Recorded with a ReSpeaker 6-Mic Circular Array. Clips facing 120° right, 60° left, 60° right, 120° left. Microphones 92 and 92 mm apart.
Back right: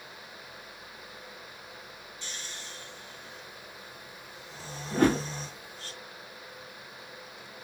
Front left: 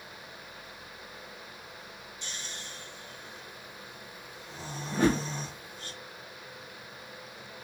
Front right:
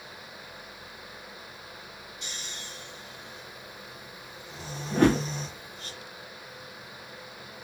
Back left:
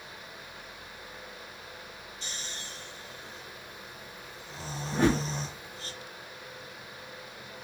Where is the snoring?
120° left, 1.1 m.